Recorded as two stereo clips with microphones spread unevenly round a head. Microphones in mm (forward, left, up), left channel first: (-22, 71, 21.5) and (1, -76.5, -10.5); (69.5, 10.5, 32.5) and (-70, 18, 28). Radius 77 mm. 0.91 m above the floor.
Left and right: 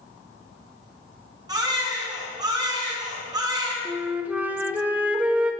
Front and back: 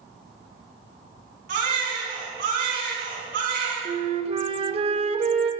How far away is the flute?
About 1.2 m.